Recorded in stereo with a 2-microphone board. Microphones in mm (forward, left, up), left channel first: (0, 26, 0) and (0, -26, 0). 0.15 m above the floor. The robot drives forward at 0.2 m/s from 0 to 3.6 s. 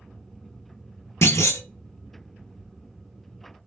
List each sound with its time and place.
1.2 s a clunk: 65° left (ahead or behind), 0.5 m; by 1.6 s 70° left (ahead or behind), 0.5 m